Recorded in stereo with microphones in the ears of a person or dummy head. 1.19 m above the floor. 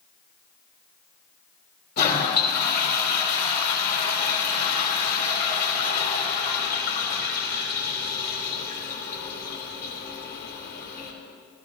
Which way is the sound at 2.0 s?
60° left (ahead or behind).